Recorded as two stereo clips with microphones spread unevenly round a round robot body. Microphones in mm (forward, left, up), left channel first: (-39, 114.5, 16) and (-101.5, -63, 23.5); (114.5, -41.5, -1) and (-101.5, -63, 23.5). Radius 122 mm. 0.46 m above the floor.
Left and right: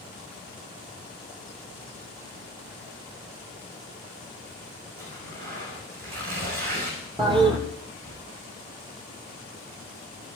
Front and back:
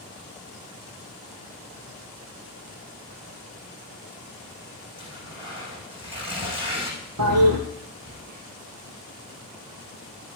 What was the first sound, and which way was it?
Tearing paper, 110° right.